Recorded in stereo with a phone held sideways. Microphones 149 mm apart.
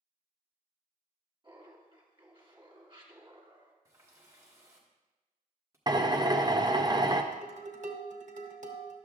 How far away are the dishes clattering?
About 1.0 m.